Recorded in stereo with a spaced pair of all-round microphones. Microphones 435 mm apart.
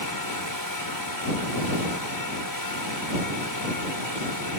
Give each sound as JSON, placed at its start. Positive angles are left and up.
{"t": 0.0, "sound": "a fan", "side_deg": 55}